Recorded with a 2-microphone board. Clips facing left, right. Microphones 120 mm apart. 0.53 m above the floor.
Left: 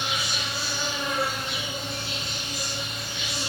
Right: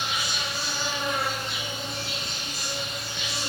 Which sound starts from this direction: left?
An insect, at 0.0 s.